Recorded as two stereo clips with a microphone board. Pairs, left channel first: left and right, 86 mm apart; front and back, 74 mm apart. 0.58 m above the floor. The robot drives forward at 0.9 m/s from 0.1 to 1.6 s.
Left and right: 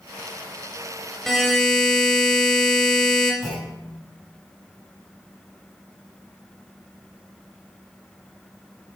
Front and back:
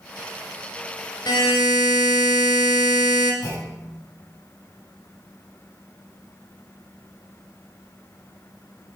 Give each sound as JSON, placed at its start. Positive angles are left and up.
{"t": 1.3, "sound": "a buzzer", "azimuth_deg": 5, "distance_m": 1.9}
{"t": 3.4, "sound": "a clunk", "azimuth_deg": 0, "distance_m": 5.0}